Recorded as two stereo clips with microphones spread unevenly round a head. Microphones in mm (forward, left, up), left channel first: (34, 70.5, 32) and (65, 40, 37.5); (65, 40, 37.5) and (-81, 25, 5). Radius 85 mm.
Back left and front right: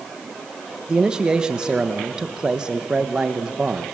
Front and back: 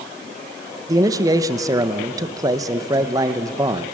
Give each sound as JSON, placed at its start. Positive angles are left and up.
{"t": 0.9, "sound": "a man speaking", "azimuth_deg": -120, "distance_m": 0.8}